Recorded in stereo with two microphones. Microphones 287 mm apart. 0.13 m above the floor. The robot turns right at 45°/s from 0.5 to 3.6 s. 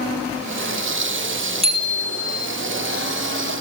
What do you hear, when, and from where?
1.6 s a bicycle bell: 20° right, 2.5 m; by 2.5 s 15° left, 2.5 m